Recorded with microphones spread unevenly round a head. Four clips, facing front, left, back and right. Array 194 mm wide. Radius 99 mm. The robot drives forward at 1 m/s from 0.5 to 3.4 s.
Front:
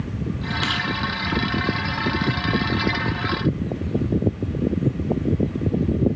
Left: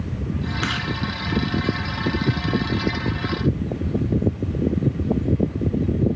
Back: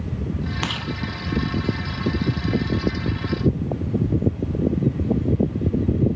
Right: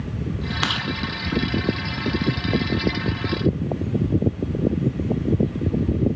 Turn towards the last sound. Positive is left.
turn(degrees=-170)